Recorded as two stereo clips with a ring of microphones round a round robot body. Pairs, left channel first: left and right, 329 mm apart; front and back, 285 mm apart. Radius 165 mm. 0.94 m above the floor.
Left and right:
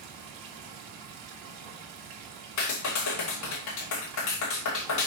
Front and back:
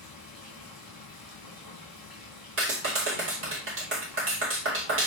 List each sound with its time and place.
0.0 s running water: 90° right, 2.5 m
2.6 s a clap: 130° left, 2.5 m